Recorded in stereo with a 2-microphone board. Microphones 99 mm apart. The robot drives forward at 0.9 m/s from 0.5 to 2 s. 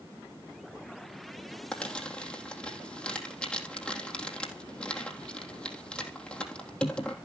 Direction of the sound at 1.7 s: 10° left (ahead or behind).